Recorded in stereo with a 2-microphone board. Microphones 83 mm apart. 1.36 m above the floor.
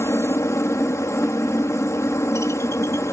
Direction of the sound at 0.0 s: 35° left (ahead or behind).